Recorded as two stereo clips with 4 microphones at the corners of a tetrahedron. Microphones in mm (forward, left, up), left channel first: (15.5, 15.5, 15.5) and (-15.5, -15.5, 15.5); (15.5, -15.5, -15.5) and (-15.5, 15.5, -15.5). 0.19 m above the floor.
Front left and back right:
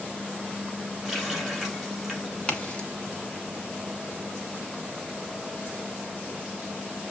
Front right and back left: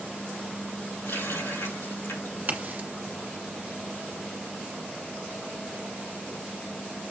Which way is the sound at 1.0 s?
50° right.